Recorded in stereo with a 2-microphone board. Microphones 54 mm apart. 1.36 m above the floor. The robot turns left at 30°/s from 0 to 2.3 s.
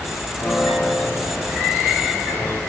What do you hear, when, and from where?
0.4 s a piano: 150° left, 5 m; by 2.6 s 95° left, 5 m